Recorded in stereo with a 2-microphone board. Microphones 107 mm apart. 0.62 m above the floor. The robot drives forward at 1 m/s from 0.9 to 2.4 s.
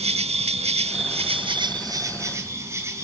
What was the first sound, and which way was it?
An insect, 75° right (ahead or behind).